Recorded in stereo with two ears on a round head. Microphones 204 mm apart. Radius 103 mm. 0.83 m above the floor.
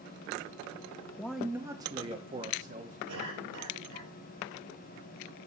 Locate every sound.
1.2 s a man speaking: 10° left (ahead or behind), 0.5 m; by 3.0 s 35° right (ahead or behind), 1.3 m
3.1 s a cough: 75° right (ahead or behind), 5 m